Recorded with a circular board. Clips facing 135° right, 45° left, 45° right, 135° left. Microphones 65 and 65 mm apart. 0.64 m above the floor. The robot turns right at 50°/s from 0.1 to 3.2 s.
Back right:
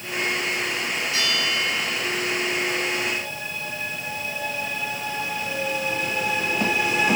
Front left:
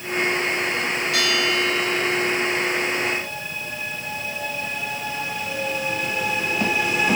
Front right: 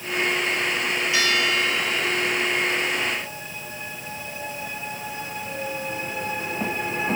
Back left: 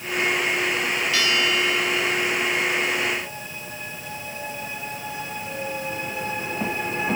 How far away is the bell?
About 2.5 m.